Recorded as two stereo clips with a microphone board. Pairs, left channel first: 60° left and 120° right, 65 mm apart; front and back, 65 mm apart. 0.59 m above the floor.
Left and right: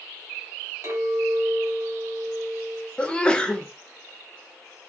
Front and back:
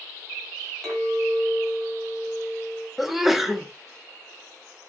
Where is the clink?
85° right, 2.5 m.